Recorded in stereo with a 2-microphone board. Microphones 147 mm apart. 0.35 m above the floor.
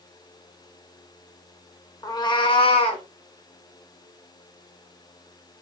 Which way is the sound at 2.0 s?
25° left (ahead or behind).